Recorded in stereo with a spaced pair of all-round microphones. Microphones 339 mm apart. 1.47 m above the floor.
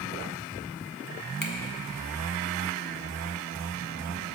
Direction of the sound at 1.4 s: 65° left (ahead or behind).